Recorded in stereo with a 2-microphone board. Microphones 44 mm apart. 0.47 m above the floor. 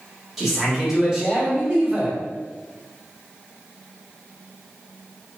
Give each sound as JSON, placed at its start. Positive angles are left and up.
{"t": 0.4, "sound": "a man speaking", "side_deg": -5, "distance_m": 1.4}